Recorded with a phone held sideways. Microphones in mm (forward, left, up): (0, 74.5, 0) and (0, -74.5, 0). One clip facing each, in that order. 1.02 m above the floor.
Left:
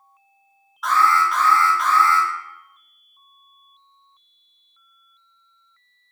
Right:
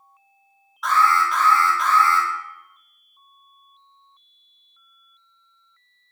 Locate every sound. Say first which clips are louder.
0.8 s an alarm: left 1 dB; centre (ahead or behind), 1.4 m